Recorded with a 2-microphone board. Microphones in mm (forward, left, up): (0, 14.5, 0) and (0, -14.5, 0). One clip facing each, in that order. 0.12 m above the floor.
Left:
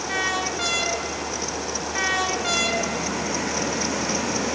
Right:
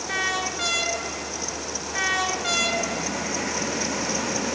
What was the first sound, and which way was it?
Only background noise.